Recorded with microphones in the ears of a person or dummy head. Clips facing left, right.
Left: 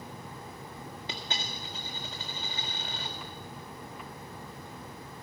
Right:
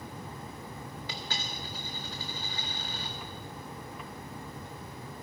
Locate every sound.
1.1 s a dropped coin: 30° left (ahead or behind), 1.5 m